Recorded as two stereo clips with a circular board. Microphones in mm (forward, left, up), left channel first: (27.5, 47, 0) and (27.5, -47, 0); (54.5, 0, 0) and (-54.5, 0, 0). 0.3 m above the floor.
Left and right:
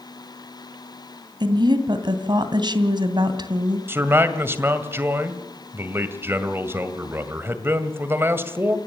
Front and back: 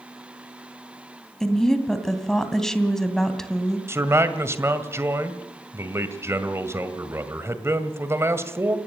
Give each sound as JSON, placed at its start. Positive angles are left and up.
{"t": 1.4, "sound": "a woman speaking", "azimuth_deg": -85, "distance_m": 2.0}
{"t": 3.9, "sound": "a man speaking", "azimuth_deg": -135, "distance_m": 1.9}